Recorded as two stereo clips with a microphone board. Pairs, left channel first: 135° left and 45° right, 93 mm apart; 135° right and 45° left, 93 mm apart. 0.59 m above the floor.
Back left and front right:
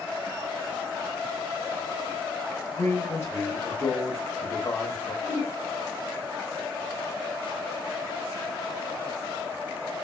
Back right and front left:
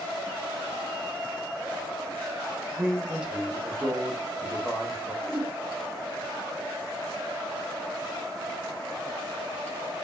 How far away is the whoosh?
About 1.4 m.